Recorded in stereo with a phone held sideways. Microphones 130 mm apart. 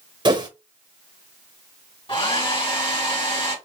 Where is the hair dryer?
40° left (ahead or behind), 1.5 m.